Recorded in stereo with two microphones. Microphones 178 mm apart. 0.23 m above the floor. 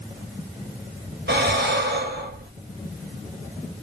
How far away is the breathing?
About 0.5 m.